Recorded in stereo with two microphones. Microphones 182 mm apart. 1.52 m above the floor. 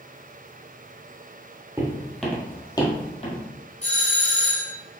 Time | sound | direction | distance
1.8 | footsteps | 15° right (ahead or behind) | 1.8 m
3.8 | a doorbell | 35° left (ahead or behind) | 1.4 m